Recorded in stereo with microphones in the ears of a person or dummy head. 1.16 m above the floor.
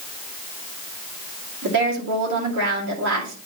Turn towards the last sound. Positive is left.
turn(degrees=-60)  # may be behind; listen again after turning